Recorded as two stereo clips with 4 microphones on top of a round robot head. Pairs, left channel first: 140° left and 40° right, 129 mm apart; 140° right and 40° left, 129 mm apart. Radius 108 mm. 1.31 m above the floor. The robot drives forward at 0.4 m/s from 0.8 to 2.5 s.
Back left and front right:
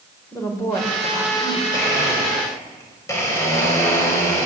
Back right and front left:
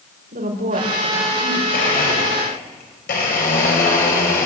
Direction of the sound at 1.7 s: 150° right.